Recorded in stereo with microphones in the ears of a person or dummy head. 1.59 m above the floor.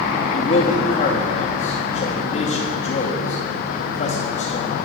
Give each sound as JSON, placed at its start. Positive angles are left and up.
{"t": 0.3, "sound": "a man speaking", "side_deg": 50, "distance_m": 2.5}